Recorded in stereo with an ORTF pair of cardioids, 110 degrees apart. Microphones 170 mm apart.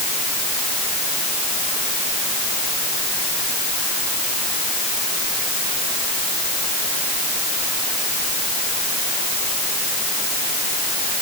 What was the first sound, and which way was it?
Only background noise.